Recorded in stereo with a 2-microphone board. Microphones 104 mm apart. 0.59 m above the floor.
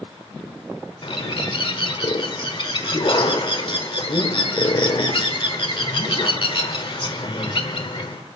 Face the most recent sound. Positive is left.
turn(degrees=50)  # may be behind; listen again after turning